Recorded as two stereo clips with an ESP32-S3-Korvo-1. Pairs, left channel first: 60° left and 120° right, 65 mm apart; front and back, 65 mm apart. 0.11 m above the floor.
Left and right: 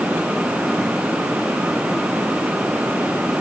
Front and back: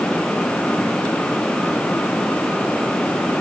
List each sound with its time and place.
Only background noise.